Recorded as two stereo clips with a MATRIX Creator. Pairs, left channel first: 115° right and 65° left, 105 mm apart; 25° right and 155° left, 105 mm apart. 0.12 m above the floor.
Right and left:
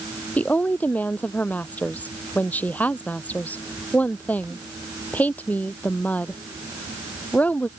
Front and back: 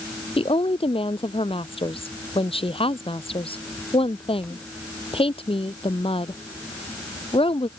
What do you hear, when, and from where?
0.4 s a woman speaking: 40° right